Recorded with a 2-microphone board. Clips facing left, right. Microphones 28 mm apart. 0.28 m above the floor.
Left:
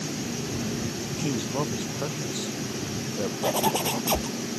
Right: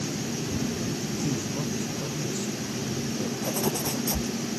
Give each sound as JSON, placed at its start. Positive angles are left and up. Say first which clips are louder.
{"t": 1.1, "sound": "a man speaking", "louder": "left 5 dB", "side_deg": 60}
{"t": 3.4, "sound": "a zipper", "louder": "left 6 dB", "side_deg": 75}